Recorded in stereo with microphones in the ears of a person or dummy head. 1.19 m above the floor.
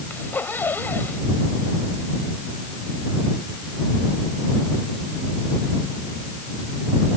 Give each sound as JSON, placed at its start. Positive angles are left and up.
{"t": 0.1, "sound": "a zipper", "side_deg": 15}